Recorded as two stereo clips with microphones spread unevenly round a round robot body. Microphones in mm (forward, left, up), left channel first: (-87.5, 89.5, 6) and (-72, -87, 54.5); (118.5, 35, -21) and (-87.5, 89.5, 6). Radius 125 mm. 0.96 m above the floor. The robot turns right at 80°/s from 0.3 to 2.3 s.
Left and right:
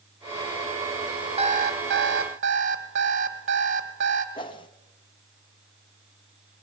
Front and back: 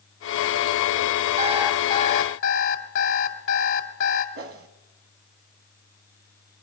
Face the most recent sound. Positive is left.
turn(degrees=145)